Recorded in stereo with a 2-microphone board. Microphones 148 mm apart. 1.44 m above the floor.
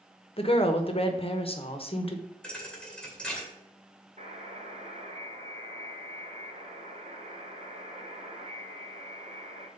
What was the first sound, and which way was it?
A woman speaking, 40° left (ahead or behind).